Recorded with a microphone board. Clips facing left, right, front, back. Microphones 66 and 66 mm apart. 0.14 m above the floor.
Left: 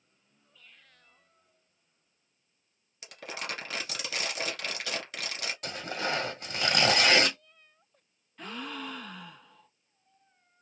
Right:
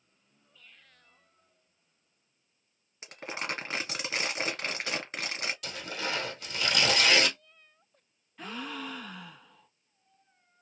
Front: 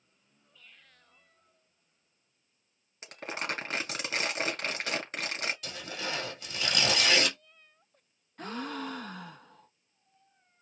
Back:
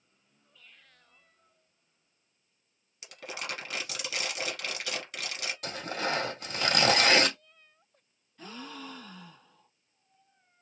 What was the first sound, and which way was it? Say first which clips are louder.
Crumpling: right 2 dB, front 3 dB; 40° right.